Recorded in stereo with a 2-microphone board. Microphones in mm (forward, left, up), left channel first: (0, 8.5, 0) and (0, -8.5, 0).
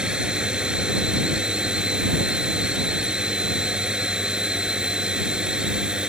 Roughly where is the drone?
Right.